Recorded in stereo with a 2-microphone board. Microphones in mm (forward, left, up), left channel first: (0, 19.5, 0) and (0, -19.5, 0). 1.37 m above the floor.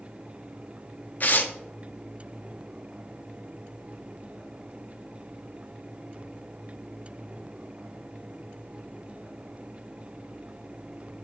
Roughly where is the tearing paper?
Left.